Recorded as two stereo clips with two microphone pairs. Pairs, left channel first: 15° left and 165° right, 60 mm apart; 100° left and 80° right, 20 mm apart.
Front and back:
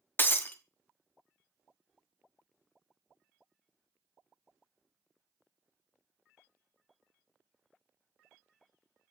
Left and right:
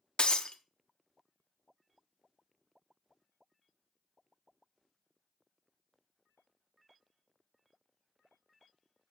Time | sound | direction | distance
0.2 | breaking glass | 65° left | 0.7 m